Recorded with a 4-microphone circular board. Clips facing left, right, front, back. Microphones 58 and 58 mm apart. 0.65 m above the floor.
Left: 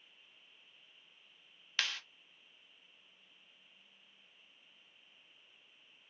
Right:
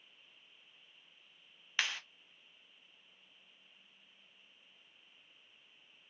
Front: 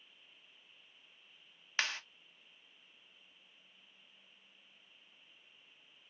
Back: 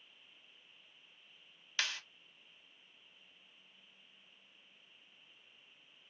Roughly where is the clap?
Ahead right.